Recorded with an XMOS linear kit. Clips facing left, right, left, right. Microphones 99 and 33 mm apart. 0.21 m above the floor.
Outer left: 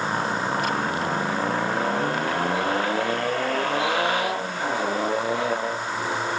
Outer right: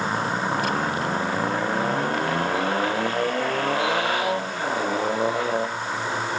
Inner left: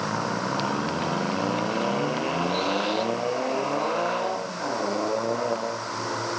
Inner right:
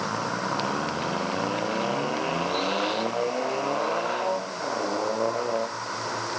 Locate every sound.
Only background noise.